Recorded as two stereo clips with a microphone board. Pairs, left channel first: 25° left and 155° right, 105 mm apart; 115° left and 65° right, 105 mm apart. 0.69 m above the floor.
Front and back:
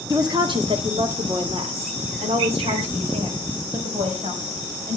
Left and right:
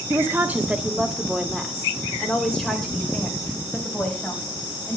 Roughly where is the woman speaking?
Behind right.